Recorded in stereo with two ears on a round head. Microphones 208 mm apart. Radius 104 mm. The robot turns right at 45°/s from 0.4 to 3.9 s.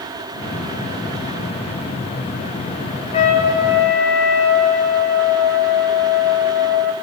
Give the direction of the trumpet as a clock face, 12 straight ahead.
11 o'clock.